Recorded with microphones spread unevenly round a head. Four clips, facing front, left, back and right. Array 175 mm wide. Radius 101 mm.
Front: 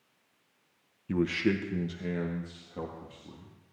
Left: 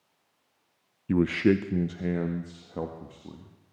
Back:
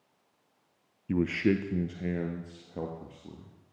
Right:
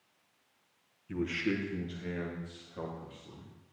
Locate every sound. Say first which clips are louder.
1.1 s a man speaking: left 10 dB, back 1 dB; 75° left, 1.0 m; by 3.5 s 120° left, 2.5 m